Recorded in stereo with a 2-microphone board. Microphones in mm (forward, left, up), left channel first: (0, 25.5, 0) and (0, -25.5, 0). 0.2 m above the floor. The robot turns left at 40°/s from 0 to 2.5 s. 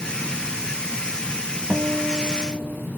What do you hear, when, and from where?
1.7 s a guitar: 15° right (ahead or behind), 0.7 m; by 2.9 s 5° right (ahead or behind), 0.7 m